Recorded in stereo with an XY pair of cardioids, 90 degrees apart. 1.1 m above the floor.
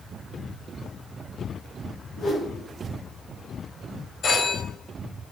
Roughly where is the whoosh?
Left.